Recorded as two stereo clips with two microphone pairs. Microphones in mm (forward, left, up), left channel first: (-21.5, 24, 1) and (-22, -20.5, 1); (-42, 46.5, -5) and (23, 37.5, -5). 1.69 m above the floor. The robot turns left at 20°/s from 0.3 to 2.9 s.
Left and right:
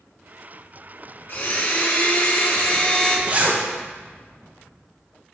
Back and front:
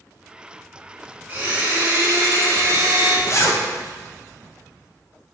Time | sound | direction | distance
1.3 | a blender | 65° left | 2.5 m
3.3 | a zipper | 150° right | 1.0 m